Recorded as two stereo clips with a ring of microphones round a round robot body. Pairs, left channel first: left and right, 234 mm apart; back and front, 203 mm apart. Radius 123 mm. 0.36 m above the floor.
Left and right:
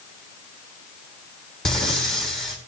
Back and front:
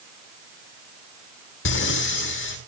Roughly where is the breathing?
Behind.